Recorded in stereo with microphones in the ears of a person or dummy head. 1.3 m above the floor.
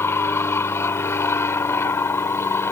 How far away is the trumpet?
I don't hear a trumpet.